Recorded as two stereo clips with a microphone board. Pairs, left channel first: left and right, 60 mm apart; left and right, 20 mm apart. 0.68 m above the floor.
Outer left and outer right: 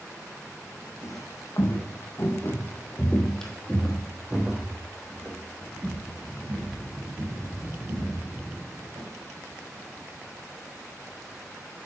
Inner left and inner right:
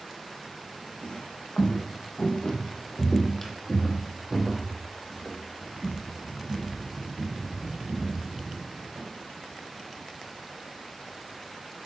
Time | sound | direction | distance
1.0 | footsteps | 60° left (ahead or behind) | 2.5 m